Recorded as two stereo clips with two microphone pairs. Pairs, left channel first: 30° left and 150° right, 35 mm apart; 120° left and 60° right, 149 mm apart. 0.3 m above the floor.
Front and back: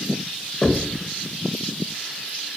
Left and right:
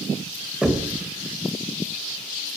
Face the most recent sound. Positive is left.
turn(degrees=10)